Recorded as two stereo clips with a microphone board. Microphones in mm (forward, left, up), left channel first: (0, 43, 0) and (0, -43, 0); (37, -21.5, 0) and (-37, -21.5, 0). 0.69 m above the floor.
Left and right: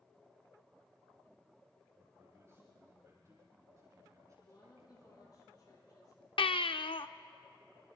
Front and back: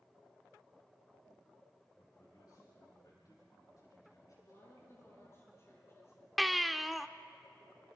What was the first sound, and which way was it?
A man speaking, 30° right.